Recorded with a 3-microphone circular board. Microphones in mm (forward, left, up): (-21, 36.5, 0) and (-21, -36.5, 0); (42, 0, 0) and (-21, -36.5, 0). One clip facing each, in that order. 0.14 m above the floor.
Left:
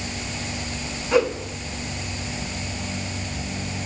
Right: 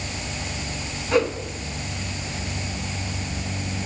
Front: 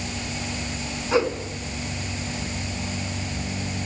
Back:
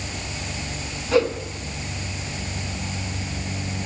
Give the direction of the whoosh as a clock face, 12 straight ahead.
12 o'clock.